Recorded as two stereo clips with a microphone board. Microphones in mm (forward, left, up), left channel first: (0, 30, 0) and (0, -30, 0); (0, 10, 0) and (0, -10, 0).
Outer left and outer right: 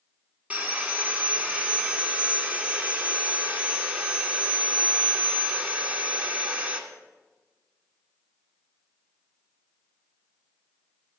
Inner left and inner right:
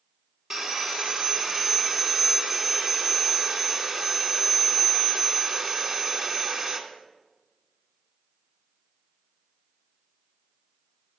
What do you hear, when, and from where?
0.5 s sawing: 25° right (ahead or behind), 1.7 m